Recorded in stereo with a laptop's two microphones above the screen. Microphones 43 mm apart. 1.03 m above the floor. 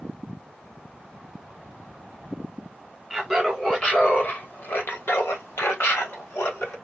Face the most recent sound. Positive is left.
turn(degrees=75)  # may be behind; listen again after turning